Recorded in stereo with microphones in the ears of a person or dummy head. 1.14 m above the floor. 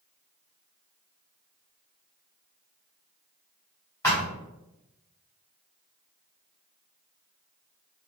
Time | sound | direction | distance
4.0 | a thud | 15° left (ahead or behind) | 1.5 m